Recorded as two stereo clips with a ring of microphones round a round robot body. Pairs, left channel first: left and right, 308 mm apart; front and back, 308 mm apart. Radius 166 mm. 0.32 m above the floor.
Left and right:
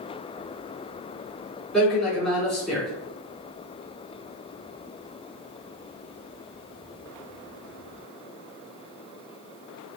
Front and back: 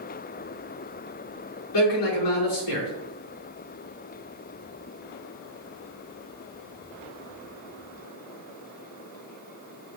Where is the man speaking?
Straight ahead, 4 m.